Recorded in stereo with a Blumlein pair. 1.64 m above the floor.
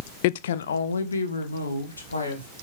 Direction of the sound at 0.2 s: 50° left.